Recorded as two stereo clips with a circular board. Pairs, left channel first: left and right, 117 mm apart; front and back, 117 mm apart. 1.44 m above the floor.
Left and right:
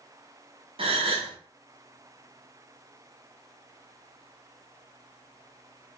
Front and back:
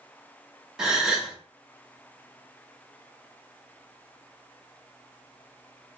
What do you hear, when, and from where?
0.8 s a gasp: 95° right, 0.8 m